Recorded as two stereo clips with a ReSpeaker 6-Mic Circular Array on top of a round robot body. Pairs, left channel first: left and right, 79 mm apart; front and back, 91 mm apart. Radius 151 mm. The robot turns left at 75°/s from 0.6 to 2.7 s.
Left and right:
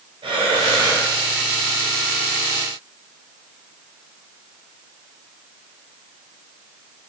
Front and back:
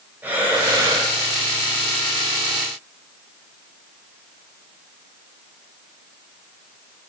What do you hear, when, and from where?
0.2 s breathing: 105° right, 4 m; by 1.1 s 145° right, 4 m